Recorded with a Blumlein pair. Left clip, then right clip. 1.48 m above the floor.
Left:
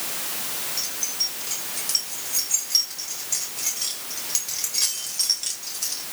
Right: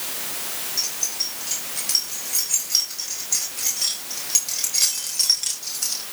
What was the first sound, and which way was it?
Keys jangling, 5° right.